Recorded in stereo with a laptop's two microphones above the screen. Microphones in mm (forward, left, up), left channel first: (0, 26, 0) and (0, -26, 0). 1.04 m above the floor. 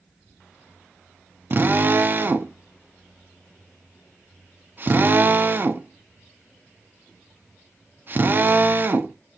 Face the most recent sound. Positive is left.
turn(degrees=-40)  # may be behind; listen again after turning